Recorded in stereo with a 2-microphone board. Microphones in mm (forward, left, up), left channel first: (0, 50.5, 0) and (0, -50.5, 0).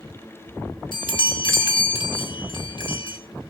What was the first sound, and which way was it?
A chime, 55° left (ahead or behind).